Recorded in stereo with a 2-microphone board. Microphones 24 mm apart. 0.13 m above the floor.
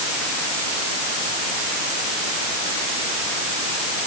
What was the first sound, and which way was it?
Only background noise.